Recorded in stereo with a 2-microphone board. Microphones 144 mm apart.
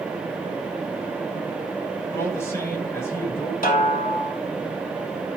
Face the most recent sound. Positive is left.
turn(degrees=75)  # may be behind; listen again after turning